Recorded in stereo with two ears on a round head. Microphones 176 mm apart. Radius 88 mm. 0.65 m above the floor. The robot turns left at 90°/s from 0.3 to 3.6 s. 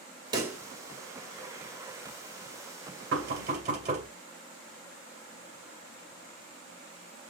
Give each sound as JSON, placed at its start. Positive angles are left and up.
{"t": 0.3, "sound": "a pop", "side_deg": -25, "distance_m": 1.9}
{"t": 3.1, "sound": "knocking", "side_deg": -75, "distance_m": 2.5}